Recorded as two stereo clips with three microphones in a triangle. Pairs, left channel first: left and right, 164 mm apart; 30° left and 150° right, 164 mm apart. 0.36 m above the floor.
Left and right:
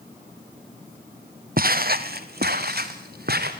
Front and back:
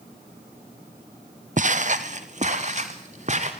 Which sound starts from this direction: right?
Footsteps, at 1.6 s.